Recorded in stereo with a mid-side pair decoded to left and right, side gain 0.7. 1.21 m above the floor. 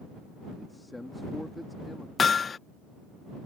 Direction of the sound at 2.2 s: 25° left.